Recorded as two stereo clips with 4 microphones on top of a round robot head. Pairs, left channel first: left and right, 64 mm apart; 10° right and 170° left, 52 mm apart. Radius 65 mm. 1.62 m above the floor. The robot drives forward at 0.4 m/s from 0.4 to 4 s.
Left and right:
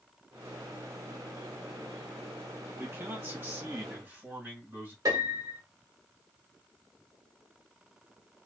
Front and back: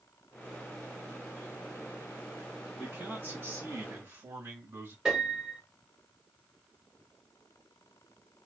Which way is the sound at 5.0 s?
110° right.